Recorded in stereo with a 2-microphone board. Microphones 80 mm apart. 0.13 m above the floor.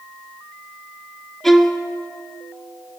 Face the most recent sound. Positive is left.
turn(degrees=5)  # may be behind; listen again after turning